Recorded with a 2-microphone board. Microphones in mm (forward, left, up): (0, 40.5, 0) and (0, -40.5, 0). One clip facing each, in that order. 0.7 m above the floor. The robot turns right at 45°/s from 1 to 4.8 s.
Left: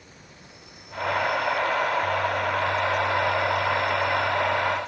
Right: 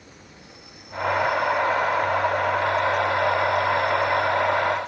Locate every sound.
0.0 s an insect: 85° right, 7.5 m; by 4.9 s 85° left, 7.5 m